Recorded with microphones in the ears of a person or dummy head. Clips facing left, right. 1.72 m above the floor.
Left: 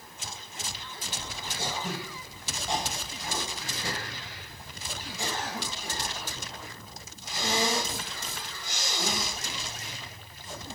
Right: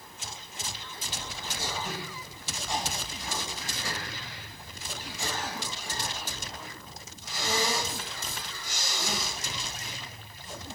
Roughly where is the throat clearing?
Left.